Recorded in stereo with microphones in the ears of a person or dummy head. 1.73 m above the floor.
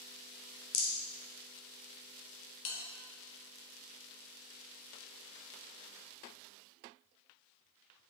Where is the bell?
65° left (ahead or behind), 1.8 m.